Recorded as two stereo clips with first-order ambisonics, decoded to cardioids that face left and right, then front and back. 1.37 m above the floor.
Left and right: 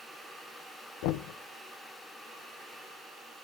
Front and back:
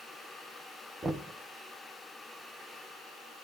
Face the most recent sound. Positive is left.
turn(degrees=100)